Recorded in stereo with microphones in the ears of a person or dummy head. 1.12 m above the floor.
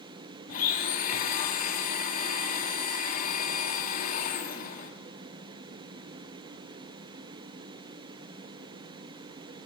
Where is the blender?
50° left (ahead or behind), 1.7 m.